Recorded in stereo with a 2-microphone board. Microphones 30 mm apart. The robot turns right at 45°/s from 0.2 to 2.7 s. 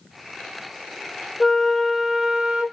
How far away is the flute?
About 0.6 m.